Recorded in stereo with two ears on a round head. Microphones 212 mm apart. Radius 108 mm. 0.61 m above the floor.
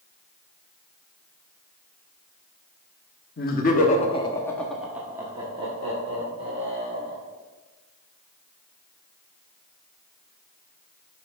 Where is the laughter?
40° left (ahead or behind), 1.2 m; by 7.2 s 35° right (ahead or behind), 2.5 m.